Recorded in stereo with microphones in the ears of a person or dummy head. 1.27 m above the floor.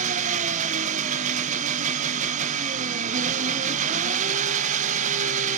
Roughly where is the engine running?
Right.